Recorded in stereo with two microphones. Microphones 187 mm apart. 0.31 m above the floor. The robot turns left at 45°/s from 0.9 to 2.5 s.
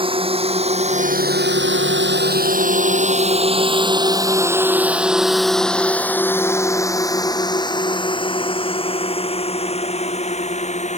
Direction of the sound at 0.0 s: 30° right (ahead or behind).